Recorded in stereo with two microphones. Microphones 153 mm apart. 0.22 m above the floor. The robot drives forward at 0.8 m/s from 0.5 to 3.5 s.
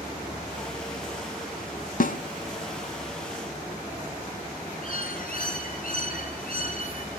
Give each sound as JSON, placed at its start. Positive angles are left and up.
{"t": 2.0, "sound": "a snare drum", "side_deg": 65, "distance_m": 0.8}
{"t": 4.8, "sound": "a bird", "side_deg": 65, "distance_m": 4.0}